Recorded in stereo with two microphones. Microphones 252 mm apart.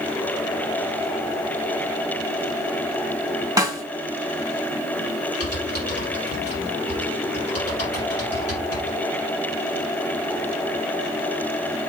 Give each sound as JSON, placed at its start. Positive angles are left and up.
{"t": 3.6, "sound": "a snare drum", "side_deg": -15, "distance_m": 1.9}
{"t": 5.4, "sound": "typing on a keyboard", "side_deg": 65, "distance_m": 4.0}